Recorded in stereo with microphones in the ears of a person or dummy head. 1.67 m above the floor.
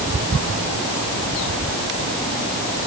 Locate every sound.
Only background noise.